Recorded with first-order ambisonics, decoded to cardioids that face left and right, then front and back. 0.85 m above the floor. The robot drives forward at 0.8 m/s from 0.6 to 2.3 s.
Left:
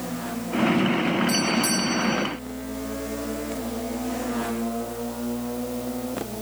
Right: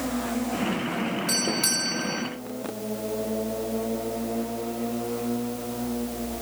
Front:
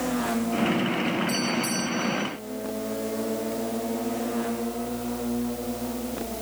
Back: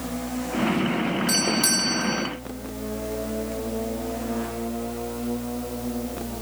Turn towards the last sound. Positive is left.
turn(degrees=-165)